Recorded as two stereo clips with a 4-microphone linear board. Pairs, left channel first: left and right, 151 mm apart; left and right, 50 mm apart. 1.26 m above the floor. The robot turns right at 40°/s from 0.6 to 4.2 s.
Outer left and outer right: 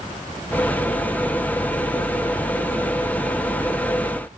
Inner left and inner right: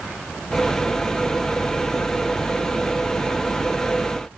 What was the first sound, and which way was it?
Only background noise.